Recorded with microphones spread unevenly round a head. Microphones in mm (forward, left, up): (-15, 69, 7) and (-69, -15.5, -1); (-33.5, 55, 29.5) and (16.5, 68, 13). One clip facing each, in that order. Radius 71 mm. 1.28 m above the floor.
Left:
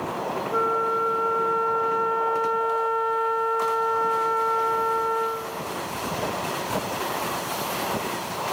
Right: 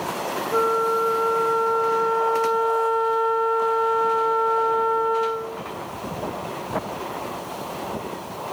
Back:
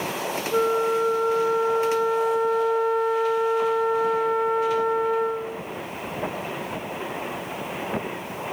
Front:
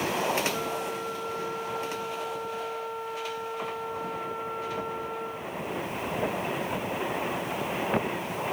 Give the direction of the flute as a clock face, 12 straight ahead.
6 o'clock.